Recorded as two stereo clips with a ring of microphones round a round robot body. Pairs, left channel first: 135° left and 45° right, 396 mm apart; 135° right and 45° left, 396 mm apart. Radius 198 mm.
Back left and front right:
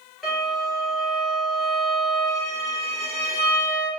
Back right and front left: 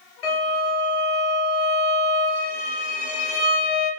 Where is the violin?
135° right, 3 m.